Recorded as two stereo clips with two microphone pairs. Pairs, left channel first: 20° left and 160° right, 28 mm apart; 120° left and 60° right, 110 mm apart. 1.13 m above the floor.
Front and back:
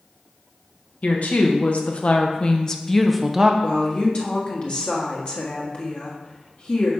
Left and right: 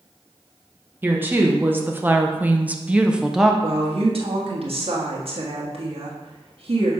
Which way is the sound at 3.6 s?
30° right.